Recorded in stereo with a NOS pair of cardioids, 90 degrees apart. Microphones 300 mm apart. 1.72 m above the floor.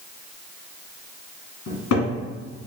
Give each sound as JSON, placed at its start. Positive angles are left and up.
{"t": 1.7, "sound": "a cupboard door", "azimuth_deg": 65, "distance_m": 1.8}